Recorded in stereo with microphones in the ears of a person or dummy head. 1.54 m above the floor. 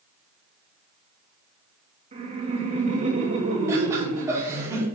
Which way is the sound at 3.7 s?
20° right (ahead or behind).